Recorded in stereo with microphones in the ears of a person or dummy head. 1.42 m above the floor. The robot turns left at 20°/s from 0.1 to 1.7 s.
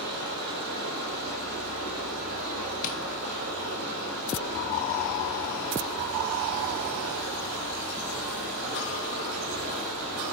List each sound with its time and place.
0.0 s running water: 60° right, 2 m; by 10.3 s 95° right, 2 m
2.8 s tapping: 40° left (ahead or behind), 0.5 m